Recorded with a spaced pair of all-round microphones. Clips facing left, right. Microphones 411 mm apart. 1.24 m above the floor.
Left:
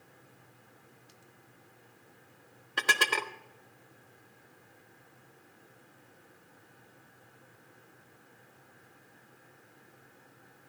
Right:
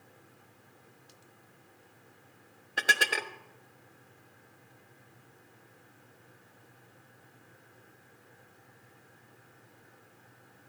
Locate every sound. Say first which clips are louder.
2.8 s dishes clattering: left 1 dB; 10° left (ahead or behind), 0.6 m